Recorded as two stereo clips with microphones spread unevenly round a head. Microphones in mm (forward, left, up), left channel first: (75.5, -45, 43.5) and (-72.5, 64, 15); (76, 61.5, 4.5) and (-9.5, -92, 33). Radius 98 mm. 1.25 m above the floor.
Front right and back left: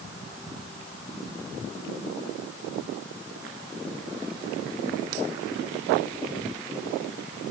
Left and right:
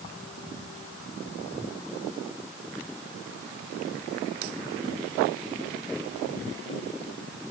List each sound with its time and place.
Only background noise.